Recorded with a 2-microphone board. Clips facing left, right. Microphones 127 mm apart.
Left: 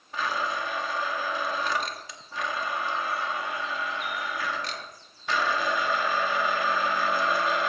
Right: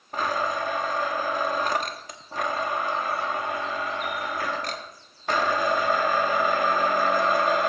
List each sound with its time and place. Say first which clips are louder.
0.1 s a blender: right 3 dB; 45° right (ahead or behind), 1.0 m